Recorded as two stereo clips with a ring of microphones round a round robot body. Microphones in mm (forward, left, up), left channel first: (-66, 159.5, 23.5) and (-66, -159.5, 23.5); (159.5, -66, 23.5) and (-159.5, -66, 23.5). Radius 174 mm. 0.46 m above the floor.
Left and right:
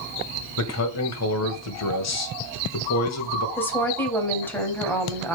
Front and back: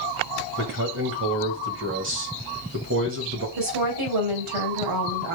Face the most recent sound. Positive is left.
turn(degrees=175)